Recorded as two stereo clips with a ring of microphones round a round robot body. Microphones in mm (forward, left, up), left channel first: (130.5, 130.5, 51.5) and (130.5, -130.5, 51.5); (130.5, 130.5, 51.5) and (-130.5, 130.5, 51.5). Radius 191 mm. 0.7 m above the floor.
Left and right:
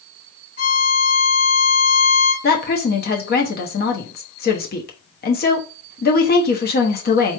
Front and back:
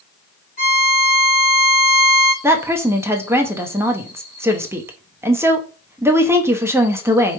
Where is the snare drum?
I don't hear a snare drum.